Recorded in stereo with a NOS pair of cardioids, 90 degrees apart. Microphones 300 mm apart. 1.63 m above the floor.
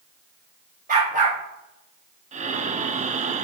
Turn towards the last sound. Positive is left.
turn(degrees=-25)